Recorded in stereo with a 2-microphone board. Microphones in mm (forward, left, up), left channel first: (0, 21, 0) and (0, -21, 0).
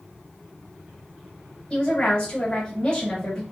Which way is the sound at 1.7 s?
25° left (ahead or behind).